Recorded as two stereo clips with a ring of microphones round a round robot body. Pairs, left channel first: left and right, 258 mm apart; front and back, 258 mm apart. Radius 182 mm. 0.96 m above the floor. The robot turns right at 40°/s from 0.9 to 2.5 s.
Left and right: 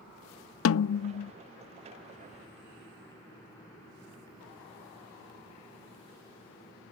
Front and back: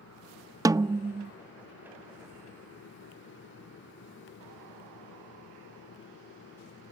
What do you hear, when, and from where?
0.7 s a snare drum: 105° left; by 1.3 s 120° left